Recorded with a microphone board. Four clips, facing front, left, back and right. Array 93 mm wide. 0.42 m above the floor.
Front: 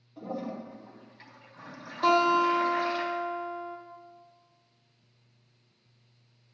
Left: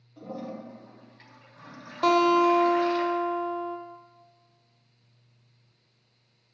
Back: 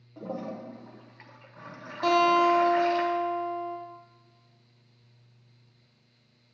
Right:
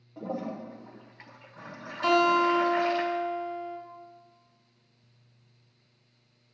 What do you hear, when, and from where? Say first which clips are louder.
0.2 s a toilet flushing: right 3 dB, even; 130° right, 1.2 m
2.0 s a guitar: left 2 dB, back 1 dB; 90° left, 2.0 m